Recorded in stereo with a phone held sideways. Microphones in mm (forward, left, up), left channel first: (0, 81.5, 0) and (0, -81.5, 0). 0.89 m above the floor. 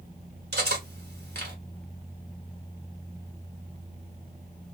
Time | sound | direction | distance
0.5 | cutlery clinking | 90° right | 1.3 m